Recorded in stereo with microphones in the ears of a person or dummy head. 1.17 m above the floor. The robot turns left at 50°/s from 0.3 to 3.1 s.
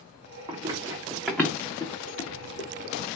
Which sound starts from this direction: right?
Running footsteps, at 0.5 s.